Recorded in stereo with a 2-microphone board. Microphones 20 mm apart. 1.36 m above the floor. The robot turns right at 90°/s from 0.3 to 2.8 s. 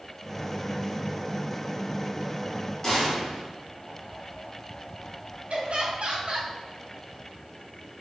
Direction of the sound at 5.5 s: 70° right (ahead or behind).